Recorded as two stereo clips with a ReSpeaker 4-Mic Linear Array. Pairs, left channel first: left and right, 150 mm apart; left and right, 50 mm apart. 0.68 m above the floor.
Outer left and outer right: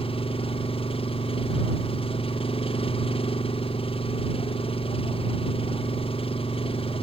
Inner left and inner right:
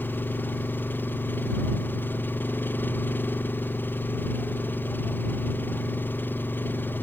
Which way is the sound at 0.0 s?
40° left (ahead or behind).